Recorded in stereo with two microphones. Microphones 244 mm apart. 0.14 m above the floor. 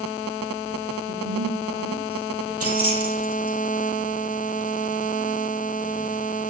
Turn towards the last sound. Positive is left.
turn(degrees=-75)  # may be behind; listen again after turning